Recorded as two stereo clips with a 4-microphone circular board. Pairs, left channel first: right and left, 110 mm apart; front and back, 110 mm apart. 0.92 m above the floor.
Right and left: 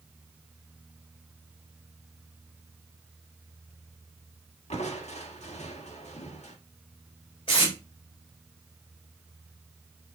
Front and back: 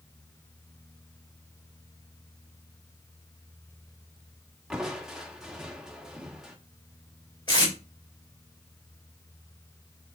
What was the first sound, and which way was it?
Crushing, 95° right.